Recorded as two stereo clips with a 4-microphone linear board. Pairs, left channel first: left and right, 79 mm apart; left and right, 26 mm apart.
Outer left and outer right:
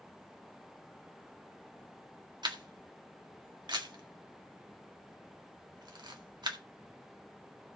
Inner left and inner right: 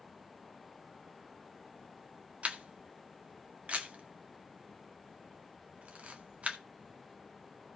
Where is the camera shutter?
70° right (ahead or behind), 1.8 m.